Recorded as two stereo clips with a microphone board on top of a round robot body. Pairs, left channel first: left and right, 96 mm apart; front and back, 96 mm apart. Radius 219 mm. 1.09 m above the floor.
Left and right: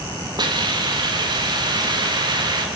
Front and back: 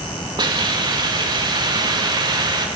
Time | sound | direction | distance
0.4 | a hiss | 135° right | 1.4 m